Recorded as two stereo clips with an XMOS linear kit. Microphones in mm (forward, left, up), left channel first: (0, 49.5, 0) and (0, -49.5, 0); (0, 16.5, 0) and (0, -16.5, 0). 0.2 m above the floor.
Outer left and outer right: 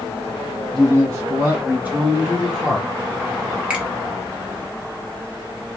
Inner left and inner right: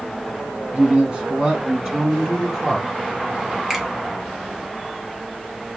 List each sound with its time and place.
0.7 s a man speaking: 40° right (ahead or behind), 2.5 m; by 2.9 s centre (ahead or behind), 2.5 m
3.7 s a finger snap: 10° right (ahead or behind), 1.4 m